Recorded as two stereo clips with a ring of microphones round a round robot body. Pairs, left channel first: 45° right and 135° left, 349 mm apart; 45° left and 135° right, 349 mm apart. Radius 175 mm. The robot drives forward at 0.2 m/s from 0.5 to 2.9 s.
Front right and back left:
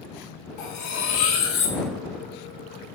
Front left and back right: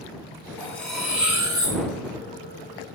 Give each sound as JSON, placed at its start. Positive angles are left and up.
{"t": 0.6, "sound": "cutlery clinking", "azimuth_deg": -35, "distance_m": 0.6}